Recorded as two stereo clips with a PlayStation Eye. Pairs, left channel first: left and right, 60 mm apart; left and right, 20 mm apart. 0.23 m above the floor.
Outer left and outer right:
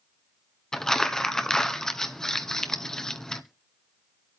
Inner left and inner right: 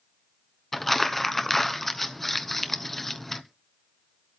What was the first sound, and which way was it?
Crumpling, 10° left (ahead or behind).